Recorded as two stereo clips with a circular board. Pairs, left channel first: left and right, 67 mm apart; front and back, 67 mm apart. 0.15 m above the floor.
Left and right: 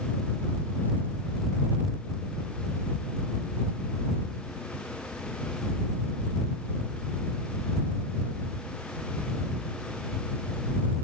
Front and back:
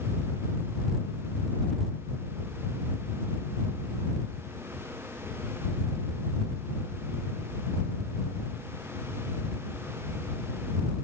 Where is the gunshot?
I don't hear a gunshot.